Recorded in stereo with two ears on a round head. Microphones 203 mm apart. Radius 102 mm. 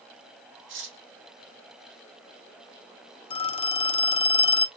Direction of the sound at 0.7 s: 60° right (ahead or behind).